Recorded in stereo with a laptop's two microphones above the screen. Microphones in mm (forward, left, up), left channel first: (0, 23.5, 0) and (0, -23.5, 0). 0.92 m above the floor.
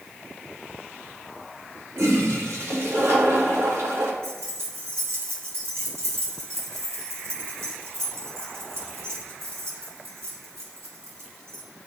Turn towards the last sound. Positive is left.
turn(degrees=-80)